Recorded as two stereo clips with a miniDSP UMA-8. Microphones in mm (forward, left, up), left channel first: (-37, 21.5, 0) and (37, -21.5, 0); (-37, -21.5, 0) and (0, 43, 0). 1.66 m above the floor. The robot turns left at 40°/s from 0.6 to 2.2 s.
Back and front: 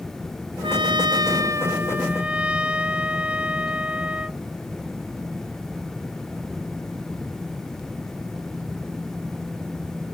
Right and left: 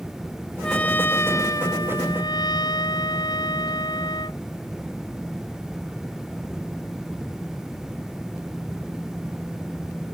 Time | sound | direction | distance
0.6 | a trumpet | 40° right | ?